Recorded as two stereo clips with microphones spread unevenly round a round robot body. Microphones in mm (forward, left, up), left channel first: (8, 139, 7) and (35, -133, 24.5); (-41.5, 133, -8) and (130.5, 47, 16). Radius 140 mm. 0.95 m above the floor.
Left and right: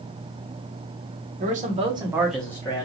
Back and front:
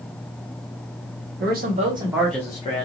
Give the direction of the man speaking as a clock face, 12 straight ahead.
1 o'clock.